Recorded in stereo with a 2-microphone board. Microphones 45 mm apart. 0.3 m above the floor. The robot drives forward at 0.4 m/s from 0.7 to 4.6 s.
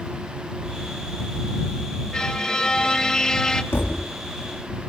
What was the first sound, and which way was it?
A violin, 15° left (ahead or behind).